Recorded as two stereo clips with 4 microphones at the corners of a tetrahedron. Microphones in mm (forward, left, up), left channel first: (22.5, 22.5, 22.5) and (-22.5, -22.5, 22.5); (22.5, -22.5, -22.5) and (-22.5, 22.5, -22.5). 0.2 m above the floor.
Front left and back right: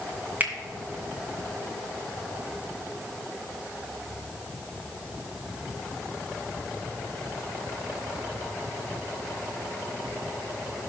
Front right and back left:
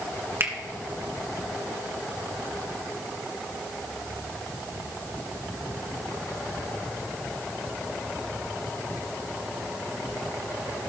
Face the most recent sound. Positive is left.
turn(degrees=170)